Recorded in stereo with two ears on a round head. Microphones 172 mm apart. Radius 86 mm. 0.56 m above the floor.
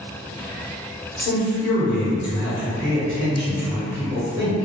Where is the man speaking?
5° left (ahead or behind), 1.7 m.